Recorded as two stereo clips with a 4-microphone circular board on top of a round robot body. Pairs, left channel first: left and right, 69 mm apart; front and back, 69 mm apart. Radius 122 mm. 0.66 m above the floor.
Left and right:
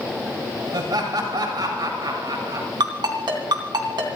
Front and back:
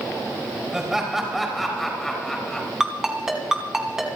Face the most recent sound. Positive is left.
turn(degrees=-95)